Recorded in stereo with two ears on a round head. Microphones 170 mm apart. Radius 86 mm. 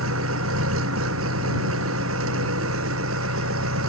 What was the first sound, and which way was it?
An engine running, 85° right.